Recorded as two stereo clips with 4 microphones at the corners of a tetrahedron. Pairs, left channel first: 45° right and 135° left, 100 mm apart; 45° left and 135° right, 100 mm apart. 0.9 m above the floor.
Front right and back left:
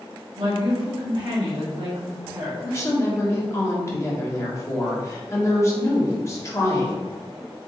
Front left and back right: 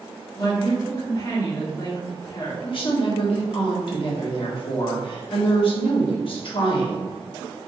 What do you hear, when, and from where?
0.4 s a woman speaking: 100° left, 1.7 m
2.6 s a woman speaking: 15° left, 1.4 m